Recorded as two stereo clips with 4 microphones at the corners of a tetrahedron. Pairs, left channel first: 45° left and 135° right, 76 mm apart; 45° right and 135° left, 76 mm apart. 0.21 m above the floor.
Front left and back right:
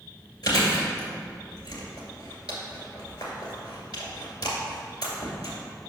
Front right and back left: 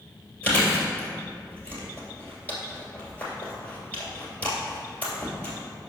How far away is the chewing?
About 2 m.